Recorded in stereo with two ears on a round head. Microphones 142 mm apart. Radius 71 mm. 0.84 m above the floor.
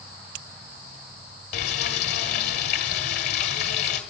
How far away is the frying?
About 1.7 m.